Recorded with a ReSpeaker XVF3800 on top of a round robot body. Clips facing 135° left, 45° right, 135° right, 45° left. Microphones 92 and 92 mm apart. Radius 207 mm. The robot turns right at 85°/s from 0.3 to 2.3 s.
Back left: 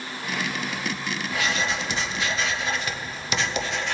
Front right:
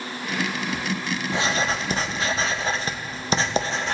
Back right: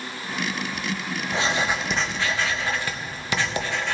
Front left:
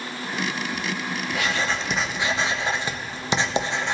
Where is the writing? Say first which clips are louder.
Front right 2 dB, back right 2 dB; 95° right, 1.0 m; by 3.9 s 10° right, 1.0 m.